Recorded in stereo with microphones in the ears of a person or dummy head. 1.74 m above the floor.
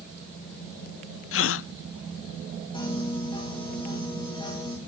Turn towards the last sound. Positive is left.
turn(degrees=35)  # may be behind; listen again after turning